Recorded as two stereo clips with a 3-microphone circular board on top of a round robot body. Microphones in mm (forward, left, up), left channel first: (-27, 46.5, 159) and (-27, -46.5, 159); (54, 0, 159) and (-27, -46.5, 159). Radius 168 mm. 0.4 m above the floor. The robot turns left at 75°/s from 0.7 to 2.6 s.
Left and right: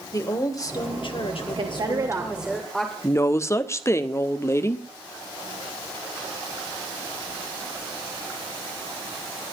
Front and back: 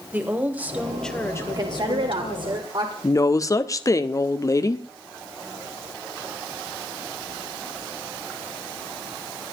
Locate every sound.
0.1 s a woman speaking: 140° left, 3 m; by 2.6 s straight ahead, 3 m
1.6 s a woman speaking: 105° right, 2 m; by 2.9 s 175° left, 2 m
3.0 s a woman speaking: 50° left, 1.5 m